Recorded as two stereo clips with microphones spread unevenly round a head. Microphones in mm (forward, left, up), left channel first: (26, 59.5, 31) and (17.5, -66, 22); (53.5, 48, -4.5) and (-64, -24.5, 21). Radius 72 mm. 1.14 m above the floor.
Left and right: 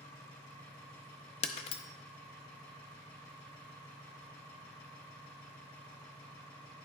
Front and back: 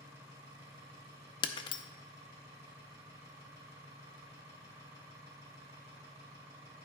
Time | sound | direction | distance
0.0 | an engine running | 145° left | 2.5 m
1.4 | breaking glass | 90° left | 0.5 m